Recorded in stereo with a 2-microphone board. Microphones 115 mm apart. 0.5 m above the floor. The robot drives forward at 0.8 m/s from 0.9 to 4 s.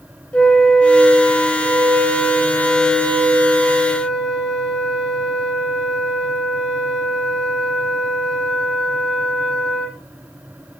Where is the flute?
10° left (ahead or behind), 0.9 m; by 10.0 s centre (ahead or behind), 3.5 m.